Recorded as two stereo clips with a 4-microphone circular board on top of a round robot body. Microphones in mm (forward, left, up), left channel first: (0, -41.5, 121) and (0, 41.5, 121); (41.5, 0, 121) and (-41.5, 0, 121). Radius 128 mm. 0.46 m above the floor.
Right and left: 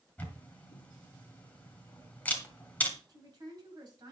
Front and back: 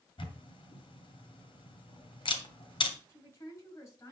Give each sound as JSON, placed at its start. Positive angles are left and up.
{"t": 0.2, "sound": "a camera shutter", "azimuth_deg": -20, "distance_m": 2.5}
{"t": 3.1, "sound": "a woman speaking", "azimuth_deg": 50, "distance_m": 5.5}